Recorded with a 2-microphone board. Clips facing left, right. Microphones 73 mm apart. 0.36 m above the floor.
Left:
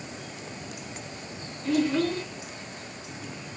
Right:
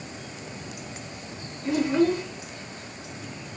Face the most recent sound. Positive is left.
turn(degrees=-20)  # may be behind; listen again after turning